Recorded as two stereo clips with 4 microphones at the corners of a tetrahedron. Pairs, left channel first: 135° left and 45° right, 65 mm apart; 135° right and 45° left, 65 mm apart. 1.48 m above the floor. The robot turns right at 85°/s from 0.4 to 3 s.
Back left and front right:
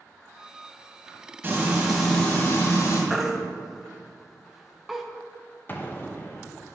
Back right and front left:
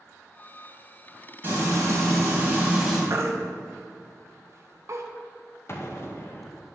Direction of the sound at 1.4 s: Straight ahead.